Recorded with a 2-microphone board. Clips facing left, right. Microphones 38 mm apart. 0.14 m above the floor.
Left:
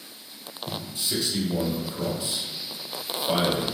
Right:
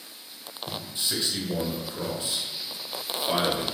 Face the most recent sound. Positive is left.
turn(degrees=-35)  # may be behind; listen again after turning